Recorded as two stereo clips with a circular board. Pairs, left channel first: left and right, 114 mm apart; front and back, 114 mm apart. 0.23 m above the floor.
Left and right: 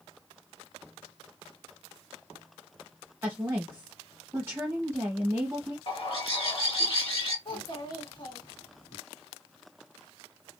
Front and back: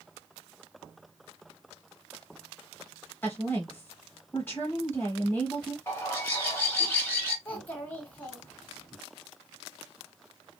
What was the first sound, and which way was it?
A woman speaking, 50° right.